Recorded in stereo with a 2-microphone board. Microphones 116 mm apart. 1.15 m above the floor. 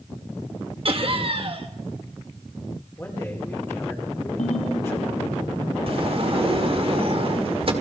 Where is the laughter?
50° right (ahead or behind), 1.5 m.